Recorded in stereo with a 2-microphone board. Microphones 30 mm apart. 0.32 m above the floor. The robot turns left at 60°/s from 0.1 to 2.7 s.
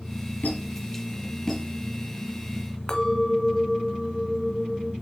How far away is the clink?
About 1.4 m.